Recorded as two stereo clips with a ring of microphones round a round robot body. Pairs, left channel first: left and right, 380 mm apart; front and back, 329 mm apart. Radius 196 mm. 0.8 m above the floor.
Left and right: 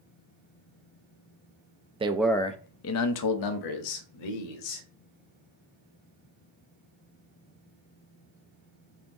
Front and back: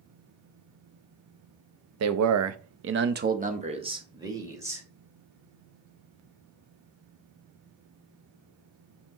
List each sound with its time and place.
2.0 s a man speaking: 160° right, 0.6 m; by 4.8 s 95° left, 1.4 m